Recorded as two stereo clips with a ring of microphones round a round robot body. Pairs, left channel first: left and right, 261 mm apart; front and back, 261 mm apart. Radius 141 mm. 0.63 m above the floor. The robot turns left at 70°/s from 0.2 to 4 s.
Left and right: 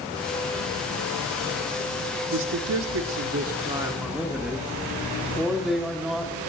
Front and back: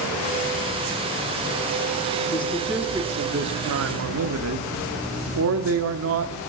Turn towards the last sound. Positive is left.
turn(degrees=180)